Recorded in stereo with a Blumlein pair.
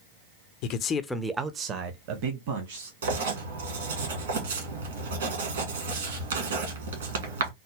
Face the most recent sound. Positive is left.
turn(degrees=-65)